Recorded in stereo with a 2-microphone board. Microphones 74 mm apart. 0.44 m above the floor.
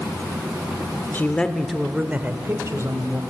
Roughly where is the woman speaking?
Left.